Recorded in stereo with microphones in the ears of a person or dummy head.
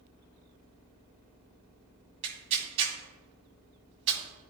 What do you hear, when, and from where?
2.2 s tearing paper: 35° right (ahead or behind), 2.5 m